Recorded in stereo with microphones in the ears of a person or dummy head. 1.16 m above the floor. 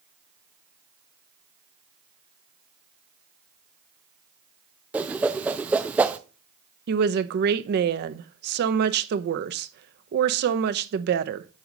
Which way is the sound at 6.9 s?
55° right (ahead or behind).